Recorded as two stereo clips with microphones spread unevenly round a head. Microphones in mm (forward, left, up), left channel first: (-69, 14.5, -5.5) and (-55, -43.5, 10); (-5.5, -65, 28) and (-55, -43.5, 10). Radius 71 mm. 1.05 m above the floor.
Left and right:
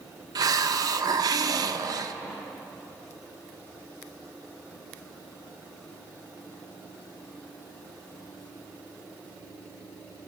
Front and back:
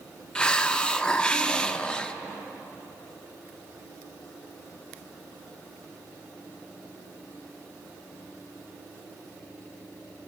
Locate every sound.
0.3 s a hiss: 105° right, 0.8 m